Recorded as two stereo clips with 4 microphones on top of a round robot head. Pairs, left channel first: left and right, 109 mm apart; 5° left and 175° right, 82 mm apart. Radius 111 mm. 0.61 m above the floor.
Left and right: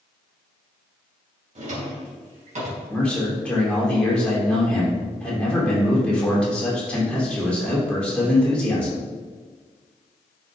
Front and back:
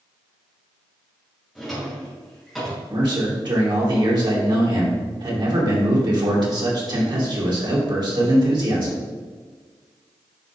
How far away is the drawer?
About 2.5 m.